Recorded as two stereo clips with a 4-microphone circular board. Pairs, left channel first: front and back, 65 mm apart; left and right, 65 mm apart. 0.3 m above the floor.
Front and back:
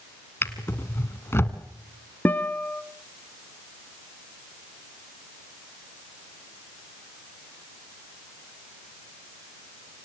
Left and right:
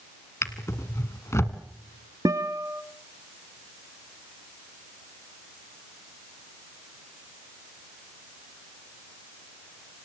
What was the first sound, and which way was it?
A drawer, 50° left.